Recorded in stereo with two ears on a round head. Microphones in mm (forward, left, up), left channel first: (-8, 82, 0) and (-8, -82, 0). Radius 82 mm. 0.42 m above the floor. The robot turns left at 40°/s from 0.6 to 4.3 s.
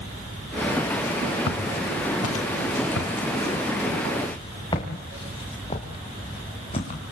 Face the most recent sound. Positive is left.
turn(degrees=35)  # may be behind; listen again after turning